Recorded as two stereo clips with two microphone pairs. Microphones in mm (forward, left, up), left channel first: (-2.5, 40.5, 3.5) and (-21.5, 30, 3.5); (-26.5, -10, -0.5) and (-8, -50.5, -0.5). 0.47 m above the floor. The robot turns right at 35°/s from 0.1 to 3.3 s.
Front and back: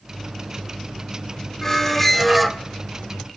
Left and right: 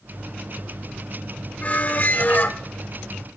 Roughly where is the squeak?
Left.